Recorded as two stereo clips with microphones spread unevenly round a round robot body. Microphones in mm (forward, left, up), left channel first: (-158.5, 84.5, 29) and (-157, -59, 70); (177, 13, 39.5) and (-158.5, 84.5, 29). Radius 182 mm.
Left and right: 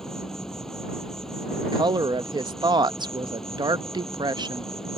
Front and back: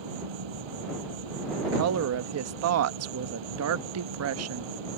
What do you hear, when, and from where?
0.0 s an insect: straight behind
1.6 s a woman speaking: 160° right